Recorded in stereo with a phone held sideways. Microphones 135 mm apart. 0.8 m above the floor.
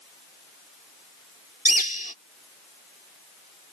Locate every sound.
1.6 s a bird: 75° left (ahead or behind)